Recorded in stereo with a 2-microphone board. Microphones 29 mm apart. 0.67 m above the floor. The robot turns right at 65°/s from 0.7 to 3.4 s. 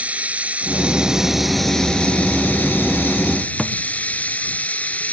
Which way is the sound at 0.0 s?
50° right.